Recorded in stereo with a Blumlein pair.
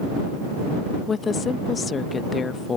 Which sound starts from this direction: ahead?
A woman speaking, at 1.1 s.